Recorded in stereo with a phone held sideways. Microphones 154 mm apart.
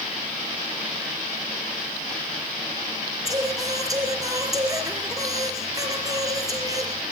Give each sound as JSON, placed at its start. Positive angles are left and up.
{"t": 3.2, "sound": "singing", "side_deg": -25, "distance_m": 3.5}